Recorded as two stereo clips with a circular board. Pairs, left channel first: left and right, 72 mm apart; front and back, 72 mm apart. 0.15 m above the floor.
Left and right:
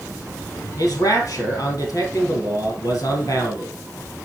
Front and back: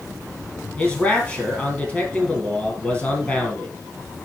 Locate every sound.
0.8 s a man speaking: 65° left, 3 m